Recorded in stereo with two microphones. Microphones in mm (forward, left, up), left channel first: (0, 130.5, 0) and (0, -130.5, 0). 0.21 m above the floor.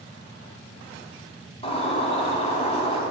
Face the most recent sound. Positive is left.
turn(degrees=25)  # may be behind; listen again after turning